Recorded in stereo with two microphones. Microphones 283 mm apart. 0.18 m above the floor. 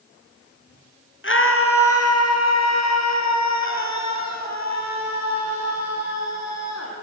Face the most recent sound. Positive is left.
turn(degrees=65)  # may be behind; listen again after turning